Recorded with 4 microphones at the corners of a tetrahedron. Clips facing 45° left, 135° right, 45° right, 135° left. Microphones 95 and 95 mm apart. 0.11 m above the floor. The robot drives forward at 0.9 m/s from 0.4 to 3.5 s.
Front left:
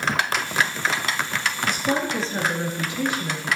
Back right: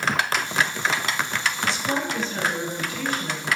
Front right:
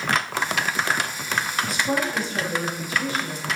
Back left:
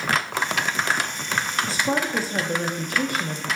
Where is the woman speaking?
75° left, 2 m; by 3.5 s 125° left, 2.5 m.